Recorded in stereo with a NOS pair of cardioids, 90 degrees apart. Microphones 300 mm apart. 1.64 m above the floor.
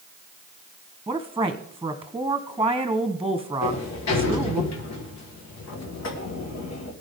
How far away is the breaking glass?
I don't hear breaking glass.